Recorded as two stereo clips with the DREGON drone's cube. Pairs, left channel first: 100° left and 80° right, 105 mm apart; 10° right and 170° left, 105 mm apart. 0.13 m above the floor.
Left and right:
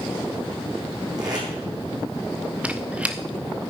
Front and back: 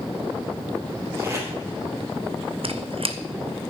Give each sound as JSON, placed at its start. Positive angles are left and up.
{"t": 1.2, "sound": "tape being pulled", "azimuth_deg": -125, "distance_m": 5.0}
{"t": 2.6, "sound": "a squeak", "azimuth_deg": -155, "distance_m": 0.9}